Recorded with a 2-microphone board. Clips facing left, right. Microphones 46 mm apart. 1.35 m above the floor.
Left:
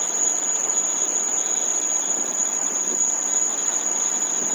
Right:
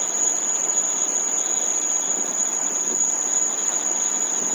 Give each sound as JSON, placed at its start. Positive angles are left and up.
{"t": 0.0, "sound": "an insect", "side_deg": -55, "distance_m": 6.5}